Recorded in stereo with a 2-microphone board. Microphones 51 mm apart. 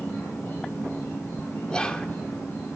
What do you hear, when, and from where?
0.0 s an insect: 40° left (ahead or behind), 8.5 m
1.7 s whispering: 20° left (ahead or behind), 1.1 m